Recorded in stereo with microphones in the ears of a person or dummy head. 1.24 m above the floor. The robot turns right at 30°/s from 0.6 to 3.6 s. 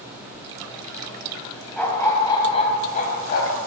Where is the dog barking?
5° left, 4 m; by 3.6 s 60° left, 4 m.